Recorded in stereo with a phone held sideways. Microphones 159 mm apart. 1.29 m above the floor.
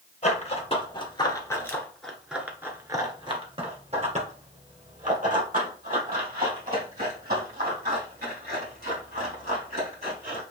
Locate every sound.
0.2 s running footsteps: 40° left (ahead or behind), 1.7 m; by 10.4 s 70° right (ahead or behind), 5 m